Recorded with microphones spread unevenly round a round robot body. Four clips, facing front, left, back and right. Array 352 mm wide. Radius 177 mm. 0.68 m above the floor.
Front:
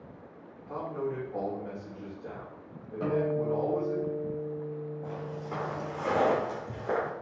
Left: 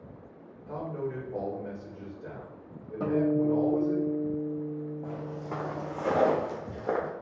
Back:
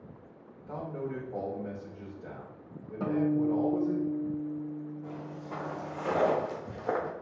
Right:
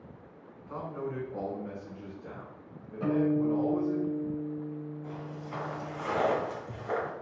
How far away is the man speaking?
About 2.5 m.